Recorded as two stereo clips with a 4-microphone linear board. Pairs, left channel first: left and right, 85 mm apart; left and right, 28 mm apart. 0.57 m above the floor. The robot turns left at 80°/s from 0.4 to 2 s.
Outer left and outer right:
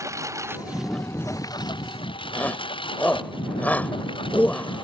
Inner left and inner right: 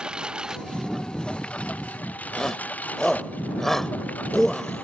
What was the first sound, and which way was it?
A lawn mower, 35° right (ahead or behind).